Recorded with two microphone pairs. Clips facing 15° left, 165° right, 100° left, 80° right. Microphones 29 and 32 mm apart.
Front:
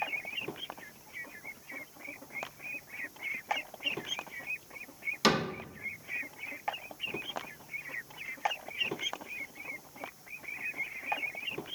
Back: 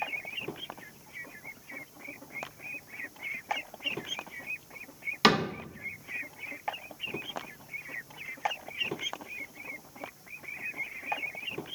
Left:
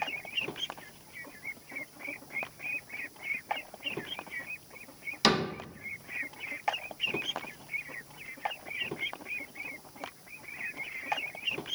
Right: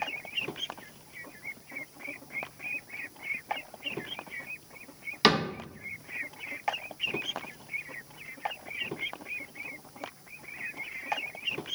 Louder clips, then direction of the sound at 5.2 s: Back 4 dB, right 3 dB; 130° right.